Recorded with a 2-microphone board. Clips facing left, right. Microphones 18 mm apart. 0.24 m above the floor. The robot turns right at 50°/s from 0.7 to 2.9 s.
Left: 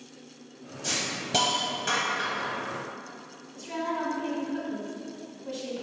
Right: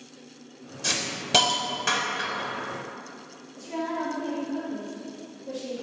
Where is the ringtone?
I don't hear a ringtone.